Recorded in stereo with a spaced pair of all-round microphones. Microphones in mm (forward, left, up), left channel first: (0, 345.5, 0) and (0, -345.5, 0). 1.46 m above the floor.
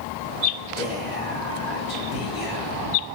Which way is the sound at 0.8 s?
50° left (ahead or behind).